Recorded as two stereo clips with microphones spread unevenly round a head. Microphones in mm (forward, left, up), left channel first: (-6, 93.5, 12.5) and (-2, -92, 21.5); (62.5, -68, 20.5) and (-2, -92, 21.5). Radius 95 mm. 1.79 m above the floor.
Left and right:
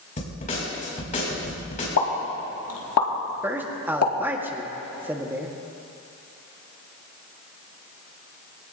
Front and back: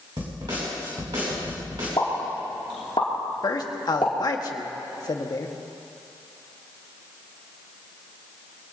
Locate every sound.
0.2 s a snare drum: 145° left, 6 m
2.0 s a pop: 85° left, 2.5 m
3.4 s a man speaking: 10° right, 1.7 m